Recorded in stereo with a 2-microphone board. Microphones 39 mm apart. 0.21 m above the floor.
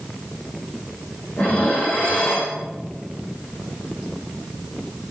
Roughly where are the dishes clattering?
Left.